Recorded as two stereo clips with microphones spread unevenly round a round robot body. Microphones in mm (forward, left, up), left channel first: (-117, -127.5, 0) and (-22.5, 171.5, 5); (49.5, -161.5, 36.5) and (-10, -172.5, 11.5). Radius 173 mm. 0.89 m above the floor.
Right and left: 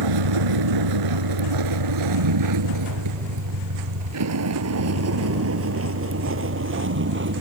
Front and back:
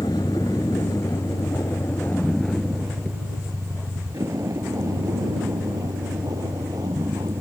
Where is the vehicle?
70° left; by 7.4 s 125° left.